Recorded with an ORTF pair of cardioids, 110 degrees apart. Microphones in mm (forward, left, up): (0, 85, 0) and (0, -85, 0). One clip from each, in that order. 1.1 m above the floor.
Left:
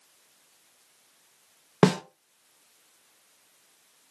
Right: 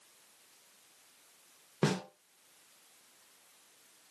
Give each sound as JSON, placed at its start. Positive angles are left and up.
{"t": 1.8, "sound": "a snare drum", "azimuth_deg": 50, "distance_m": 0.7}